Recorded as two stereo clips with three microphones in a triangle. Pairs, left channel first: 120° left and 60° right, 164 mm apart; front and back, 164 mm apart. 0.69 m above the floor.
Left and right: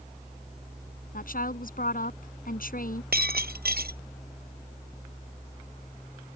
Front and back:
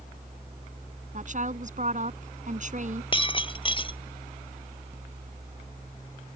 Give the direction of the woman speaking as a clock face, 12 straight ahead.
7 o'clock.